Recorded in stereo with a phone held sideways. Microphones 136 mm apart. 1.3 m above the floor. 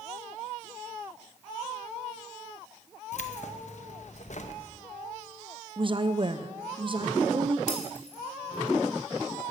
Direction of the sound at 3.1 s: 60° left (ahead or behind).